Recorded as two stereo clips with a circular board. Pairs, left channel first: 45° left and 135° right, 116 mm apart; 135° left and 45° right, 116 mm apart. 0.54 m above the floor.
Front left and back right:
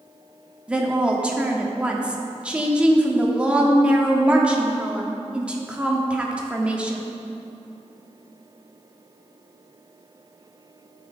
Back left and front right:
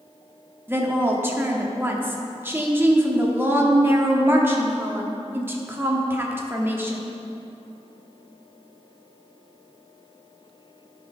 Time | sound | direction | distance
0.7 | a woman speaking | 75° right | 0.8 m